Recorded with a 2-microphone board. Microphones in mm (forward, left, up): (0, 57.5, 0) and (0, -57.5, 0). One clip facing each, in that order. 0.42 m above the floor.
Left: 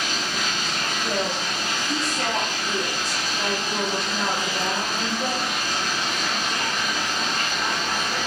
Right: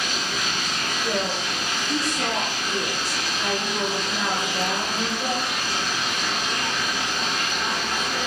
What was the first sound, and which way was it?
Running water, 55° left (ahead or behind).